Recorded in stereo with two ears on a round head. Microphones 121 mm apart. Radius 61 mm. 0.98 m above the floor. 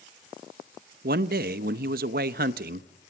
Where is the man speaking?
75° right (ahead or behind), 0.8 m.